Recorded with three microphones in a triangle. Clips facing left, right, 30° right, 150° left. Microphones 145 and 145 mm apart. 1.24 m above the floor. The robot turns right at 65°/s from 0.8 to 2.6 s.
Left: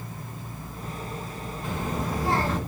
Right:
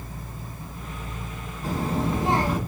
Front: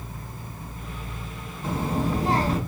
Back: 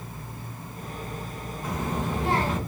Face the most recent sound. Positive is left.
turn(degrees=-10)